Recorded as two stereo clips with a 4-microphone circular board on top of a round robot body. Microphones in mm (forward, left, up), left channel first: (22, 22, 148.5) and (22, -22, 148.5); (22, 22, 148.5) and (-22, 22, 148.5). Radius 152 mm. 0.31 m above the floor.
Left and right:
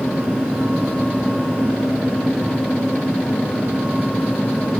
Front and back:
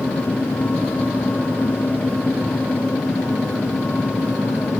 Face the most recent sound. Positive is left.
No sound to turn to.